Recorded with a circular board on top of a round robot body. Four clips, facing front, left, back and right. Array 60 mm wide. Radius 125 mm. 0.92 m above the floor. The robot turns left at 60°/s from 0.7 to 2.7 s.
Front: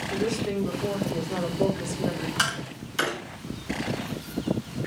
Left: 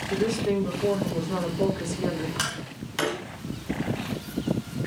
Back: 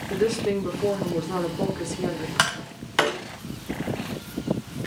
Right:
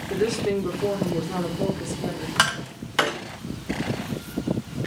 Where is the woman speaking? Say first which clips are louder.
Right 2 dB, back 5 dB; 130° right, 3.5 m; by 2.3 s 135° left, 3.5 m.